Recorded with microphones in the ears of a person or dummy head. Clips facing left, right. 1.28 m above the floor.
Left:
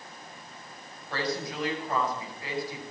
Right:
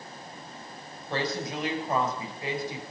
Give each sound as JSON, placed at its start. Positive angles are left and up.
{"t": 1.1, "sound": "a woman speaking", "side_deg": -20, "distance_m": 6.0}